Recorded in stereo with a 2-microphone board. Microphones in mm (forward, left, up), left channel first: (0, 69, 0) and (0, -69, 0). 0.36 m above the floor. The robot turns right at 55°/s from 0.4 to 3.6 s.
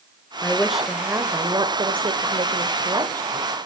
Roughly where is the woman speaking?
Behind.